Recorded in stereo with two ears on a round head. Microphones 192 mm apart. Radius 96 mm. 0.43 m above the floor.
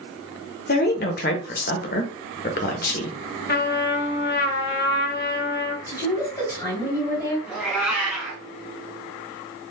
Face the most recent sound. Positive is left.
turn(degrees=-5)  # may be behind; listen again after turning